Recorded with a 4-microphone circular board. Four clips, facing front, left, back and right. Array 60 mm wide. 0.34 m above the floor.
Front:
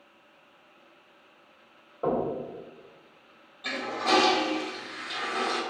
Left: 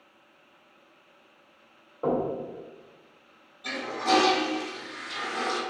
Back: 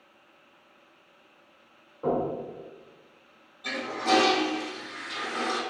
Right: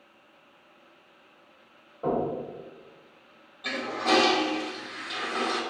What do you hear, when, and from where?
2.0 s knocking: 35° left, 1.6 m
3.6 s a toilet flushing: 50° right, 0.9 m